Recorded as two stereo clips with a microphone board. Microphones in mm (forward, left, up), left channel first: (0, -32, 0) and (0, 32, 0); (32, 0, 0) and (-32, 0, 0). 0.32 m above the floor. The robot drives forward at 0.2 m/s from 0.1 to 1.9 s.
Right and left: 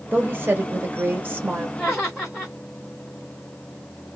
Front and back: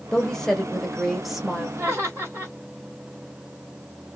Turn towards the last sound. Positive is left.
turn(degrees=-175)